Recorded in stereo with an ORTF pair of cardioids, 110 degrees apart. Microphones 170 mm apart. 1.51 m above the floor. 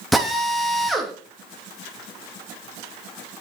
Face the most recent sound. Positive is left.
turn(degrees=0)